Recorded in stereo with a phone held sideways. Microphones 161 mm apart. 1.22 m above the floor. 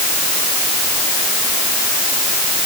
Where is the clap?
I don't hear a clap.